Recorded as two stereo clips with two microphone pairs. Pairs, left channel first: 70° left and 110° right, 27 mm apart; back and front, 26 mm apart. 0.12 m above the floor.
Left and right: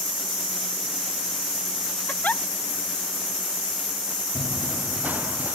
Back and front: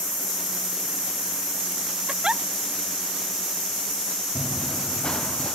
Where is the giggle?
60° left.